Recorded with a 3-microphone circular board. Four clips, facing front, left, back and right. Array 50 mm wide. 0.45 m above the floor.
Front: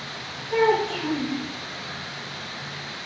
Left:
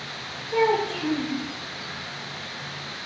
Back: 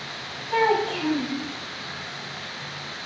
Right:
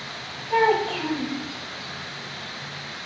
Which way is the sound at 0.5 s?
120° right.